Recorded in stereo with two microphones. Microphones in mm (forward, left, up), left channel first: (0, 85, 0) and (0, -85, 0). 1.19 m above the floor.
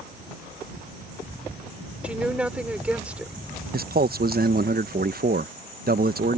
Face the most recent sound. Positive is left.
turn(degrees=-65)  # may be behind; listen again after turning